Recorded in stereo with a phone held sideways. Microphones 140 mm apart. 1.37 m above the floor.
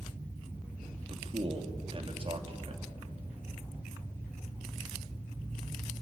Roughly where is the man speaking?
Right.